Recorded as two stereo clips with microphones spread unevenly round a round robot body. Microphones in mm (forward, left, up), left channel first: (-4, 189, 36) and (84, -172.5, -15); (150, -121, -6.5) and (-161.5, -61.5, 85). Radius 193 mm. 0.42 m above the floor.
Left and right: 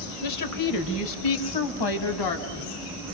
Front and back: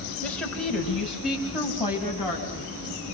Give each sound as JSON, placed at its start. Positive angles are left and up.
{"t": 0.2, "sound": "a woman speaking", "azimuth_deg": 65, "distance_m": 1.8}